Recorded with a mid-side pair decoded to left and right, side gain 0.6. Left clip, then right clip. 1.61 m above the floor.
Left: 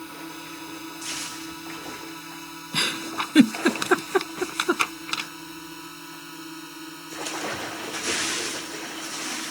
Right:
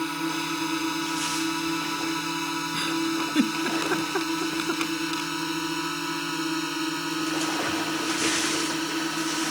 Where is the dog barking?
I don't hear a dog barking.